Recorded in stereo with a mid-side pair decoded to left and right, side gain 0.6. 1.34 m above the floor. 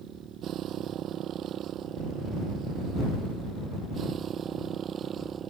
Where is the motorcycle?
55° right; by 5.5 s 40° right.